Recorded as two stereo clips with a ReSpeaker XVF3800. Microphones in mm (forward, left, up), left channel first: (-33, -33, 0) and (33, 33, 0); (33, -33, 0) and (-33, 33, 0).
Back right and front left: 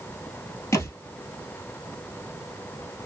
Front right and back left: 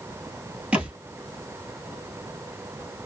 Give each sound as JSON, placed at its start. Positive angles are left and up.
{"t": 0.7, "sound": "a thud", "azimuth_deg": -160, "distance_m": 1.2}